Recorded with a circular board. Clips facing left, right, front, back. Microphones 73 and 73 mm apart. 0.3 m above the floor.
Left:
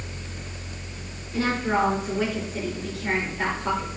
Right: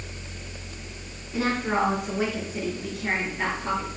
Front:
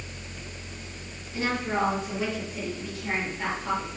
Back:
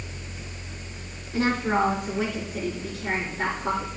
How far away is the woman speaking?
About 2.5 m.